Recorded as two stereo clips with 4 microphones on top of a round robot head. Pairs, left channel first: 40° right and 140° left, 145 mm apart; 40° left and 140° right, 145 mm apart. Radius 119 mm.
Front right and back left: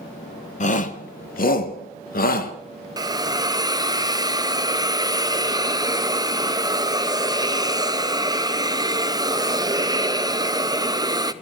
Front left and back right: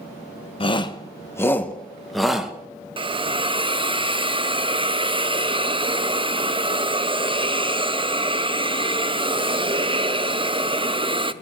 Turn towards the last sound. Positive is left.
turn(degrees=-170)